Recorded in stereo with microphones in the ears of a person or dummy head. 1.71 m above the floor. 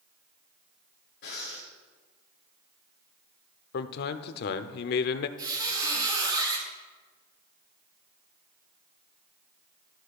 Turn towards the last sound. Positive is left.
turn(degrees=-25)  # may be behind; listen again after turning